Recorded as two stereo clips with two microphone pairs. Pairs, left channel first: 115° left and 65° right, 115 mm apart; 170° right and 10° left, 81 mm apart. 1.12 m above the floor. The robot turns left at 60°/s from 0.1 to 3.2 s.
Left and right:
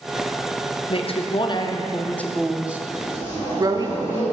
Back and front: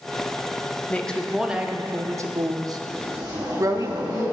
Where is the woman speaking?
115° left, 0.5 m; by 3.9 s 20° right, 0.5 m.